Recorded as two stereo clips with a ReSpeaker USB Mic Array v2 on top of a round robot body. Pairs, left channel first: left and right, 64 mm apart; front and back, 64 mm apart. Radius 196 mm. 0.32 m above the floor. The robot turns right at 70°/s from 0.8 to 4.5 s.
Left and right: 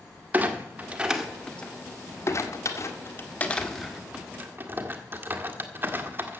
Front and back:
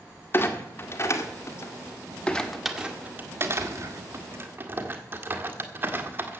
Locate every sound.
0.3 s a clunk: 35° right, 1.9 m; by 6.4 s 135° right, 1.9 m